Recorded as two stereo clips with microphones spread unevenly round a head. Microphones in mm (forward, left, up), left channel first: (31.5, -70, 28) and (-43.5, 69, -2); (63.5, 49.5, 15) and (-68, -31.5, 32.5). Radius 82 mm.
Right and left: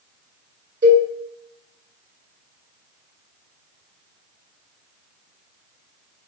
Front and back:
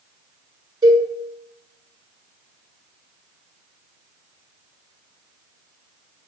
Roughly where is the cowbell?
Behind left.